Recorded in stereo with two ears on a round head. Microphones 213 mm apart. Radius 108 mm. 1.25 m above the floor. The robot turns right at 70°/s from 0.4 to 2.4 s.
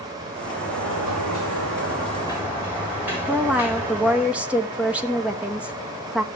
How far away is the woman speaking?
About 1.2 m.